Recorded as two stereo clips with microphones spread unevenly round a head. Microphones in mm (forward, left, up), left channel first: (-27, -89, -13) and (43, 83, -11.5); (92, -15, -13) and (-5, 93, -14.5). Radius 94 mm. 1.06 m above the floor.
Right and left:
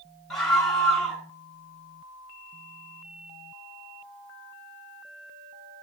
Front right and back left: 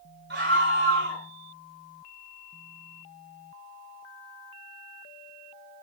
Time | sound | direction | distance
0.3 | a scream | 160° left | 8.5 m